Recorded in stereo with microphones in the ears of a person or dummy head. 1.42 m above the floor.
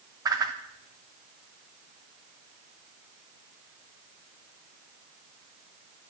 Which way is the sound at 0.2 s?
15° right (ahead or behind).